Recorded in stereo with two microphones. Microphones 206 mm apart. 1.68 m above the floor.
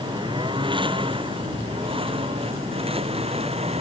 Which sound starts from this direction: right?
A lawn mower, at 0.0 s.